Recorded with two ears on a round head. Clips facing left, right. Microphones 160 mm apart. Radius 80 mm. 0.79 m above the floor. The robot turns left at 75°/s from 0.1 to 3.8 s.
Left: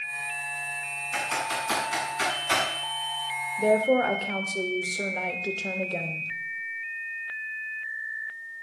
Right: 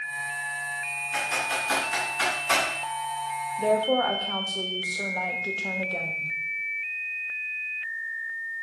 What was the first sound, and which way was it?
Typing on a keyboard, 65° left (ahead or behind).